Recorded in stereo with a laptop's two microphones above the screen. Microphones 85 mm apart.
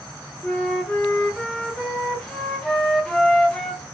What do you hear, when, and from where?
0.4 s a flute: 5° left (ahead or behind), 0.7 m